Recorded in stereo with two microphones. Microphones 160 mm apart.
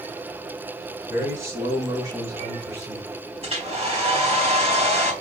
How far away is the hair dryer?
About 4 m.